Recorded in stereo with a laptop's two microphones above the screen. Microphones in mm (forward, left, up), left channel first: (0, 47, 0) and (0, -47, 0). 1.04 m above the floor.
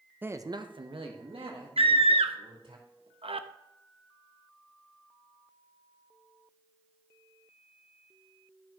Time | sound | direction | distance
0.2 | a man speaking | 20° right (ahead or behind) | 0.8 m
1.8 | a scream | 80° right | 0.8 m